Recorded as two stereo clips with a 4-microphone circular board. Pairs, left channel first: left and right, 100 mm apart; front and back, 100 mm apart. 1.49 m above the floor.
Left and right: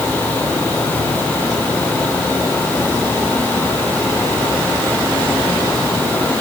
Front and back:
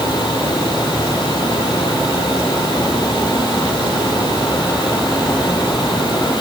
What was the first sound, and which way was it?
Only background noise.